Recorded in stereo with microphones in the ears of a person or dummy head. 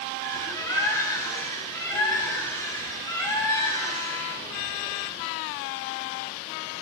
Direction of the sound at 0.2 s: 20° left (ahead or behind).